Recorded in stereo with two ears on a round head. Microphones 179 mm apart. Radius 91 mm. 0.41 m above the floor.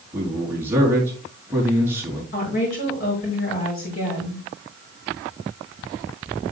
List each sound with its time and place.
0.1 s a man speaking: 10° right (ahead or behind), 4.5 m
2.3 s a woman speaking: 45° left (ahead or behind), 6.5 m